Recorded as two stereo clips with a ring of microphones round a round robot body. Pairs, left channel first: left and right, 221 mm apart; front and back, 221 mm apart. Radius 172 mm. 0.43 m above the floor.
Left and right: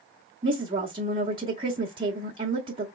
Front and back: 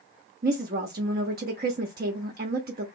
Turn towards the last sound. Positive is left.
turn(degrees=-155)